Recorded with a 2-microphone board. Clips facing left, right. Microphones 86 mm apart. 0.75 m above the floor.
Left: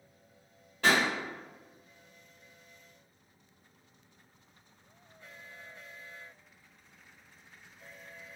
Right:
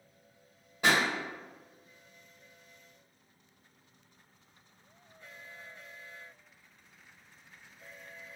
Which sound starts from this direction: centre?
A pop, at 0.8 s.